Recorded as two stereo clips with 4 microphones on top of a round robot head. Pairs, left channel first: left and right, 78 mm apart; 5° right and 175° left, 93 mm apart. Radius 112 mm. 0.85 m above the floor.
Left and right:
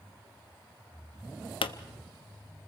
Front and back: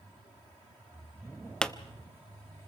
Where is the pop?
80° left, 0.8 m.